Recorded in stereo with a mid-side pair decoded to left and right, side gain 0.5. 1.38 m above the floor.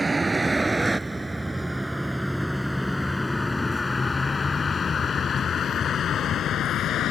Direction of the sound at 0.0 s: 25° right.